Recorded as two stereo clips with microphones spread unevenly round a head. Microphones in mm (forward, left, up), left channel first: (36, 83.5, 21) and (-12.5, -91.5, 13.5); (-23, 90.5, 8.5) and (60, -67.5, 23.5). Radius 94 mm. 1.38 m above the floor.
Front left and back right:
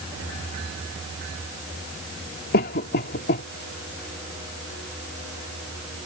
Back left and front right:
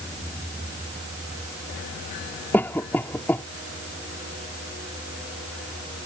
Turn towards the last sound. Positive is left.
turn(degrees=35)